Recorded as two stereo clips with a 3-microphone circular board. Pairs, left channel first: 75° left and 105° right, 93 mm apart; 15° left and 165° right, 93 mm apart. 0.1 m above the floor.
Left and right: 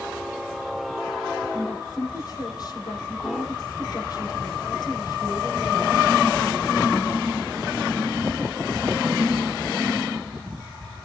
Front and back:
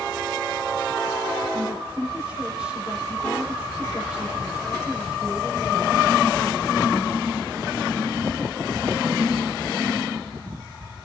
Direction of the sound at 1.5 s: 115° left.